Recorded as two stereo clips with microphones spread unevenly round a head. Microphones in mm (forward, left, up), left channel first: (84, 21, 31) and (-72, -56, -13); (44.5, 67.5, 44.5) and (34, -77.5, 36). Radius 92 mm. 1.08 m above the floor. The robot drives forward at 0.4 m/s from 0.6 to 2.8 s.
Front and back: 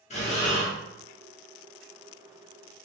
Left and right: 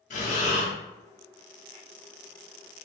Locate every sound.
0.1 s breathing: 65° left, 0.8 m